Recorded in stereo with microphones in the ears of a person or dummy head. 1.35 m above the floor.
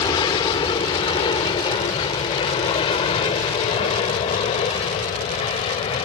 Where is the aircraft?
25° left (ahead or behind); by 6.1 s 35° left (ahead or behind).